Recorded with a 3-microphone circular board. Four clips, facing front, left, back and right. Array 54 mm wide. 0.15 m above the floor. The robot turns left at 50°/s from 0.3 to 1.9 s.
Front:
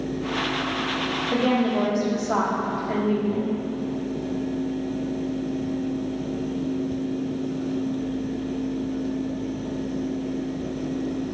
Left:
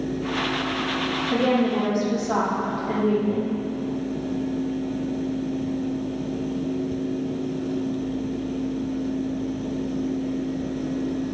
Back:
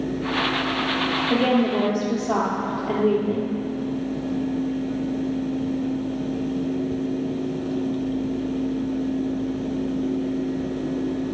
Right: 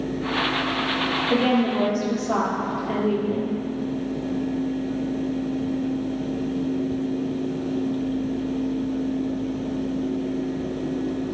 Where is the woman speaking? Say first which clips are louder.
Even, back 1 dB; 140° right, 3.5 m; by 3.5 s 170° right, 3.5 m.